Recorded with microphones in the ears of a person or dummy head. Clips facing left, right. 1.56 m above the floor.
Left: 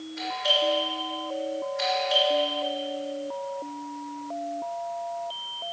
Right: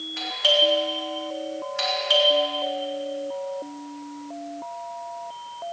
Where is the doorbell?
80° right, 3.5 m.